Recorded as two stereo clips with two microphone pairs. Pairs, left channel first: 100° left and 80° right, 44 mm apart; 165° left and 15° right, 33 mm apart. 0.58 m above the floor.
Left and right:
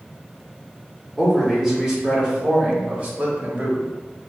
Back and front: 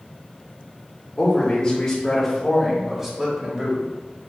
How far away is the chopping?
I don't hear chopping.